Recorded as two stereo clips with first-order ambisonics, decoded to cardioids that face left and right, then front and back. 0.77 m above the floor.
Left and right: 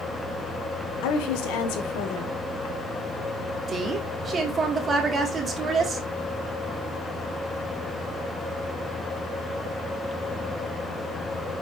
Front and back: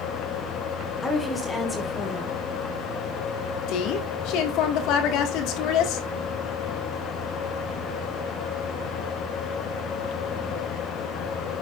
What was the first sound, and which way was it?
A woman speaking, 80° left.